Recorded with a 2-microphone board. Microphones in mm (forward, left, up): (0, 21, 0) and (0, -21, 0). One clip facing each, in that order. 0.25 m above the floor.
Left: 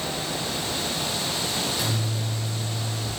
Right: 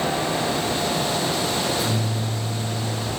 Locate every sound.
1.6 s a microwave: 80° left, 5.5 m